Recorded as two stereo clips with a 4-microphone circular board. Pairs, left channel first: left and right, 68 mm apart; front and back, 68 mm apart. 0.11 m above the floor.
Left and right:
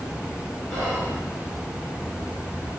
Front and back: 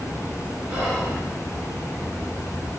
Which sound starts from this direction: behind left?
Whispering, at 0.7 s.